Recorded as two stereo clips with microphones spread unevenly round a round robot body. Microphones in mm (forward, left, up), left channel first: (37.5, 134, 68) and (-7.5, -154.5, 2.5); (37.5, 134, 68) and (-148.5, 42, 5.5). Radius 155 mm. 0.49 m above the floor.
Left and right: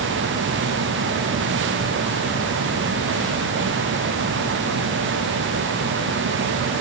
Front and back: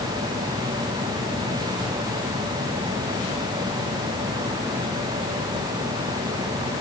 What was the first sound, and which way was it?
Only background noise.